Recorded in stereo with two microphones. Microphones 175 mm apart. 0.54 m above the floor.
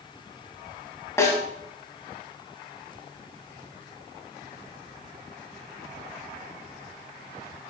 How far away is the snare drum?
About 2.5 m.